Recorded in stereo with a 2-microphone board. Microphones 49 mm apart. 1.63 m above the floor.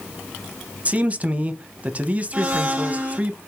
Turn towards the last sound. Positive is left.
turn(degrees=-30)  # may be behind; listen again after turning